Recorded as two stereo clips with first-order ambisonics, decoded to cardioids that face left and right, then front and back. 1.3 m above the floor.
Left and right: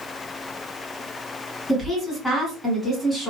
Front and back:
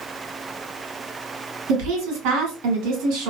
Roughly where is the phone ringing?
No phone ringing in this recording.